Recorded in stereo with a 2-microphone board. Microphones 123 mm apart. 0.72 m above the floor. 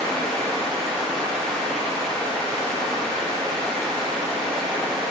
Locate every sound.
0.0 s running water: 10° left (ahead or behind), 0.9 m